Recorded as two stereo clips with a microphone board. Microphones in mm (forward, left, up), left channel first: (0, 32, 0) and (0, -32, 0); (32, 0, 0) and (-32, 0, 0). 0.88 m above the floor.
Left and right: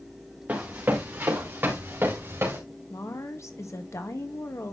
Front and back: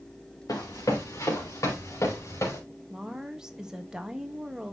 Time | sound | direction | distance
0.5 | running footsteps | 30° right | 3.5 m
2.9 | a woman speaking | 105° left | 1.3 m